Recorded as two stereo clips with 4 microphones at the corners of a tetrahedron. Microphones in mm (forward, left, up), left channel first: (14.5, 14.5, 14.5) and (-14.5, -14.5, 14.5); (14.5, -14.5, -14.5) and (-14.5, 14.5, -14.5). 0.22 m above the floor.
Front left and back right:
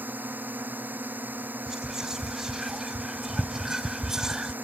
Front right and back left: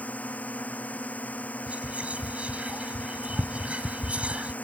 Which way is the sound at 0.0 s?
95° right.